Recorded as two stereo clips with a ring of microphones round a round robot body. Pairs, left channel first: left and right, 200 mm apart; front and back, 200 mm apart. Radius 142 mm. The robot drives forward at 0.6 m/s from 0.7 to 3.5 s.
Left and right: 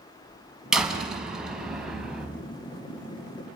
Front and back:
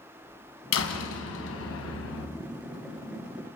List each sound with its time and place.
0.7 s a door slam: 5° right, 4.5 m